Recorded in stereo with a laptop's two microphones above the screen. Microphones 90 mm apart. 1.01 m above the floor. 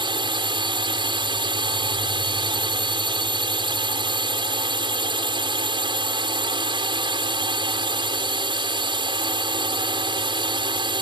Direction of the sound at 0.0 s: 65° right (ahead or behind).